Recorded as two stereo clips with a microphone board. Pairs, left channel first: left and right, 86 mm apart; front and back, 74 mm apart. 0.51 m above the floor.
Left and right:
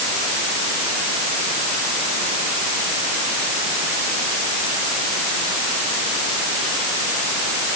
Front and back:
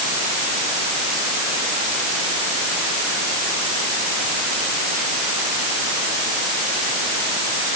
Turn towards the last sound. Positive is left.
No sound to turn to.